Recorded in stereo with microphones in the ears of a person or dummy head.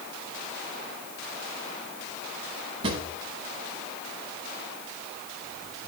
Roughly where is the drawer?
Right.